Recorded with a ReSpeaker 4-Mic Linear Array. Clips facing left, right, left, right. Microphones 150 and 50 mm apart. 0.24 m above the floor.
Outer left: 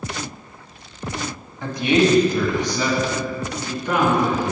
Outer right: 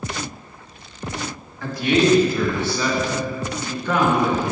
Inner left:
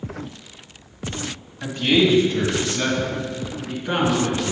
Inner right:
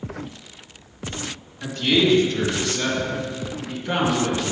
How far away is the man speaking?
About 1.2 m.